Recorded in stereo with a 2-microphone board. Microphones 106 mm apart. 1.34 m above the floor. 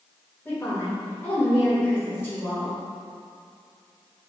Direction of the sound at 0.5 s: 20° left (ahead or behind).